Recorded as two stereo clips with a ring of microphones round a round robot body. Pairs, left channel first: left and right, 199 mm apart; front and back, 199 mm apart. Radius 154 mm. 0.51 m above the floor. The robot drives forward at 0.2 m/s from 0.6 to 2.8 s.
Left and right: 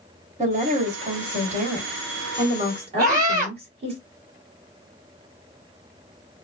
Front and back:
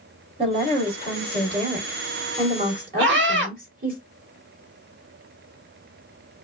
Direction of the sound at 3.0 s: 160° right.